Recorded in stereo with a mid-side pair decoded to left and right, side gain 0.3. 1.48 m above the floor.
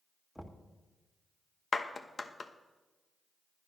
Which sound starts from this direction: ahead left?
A clap, at 1.7 s.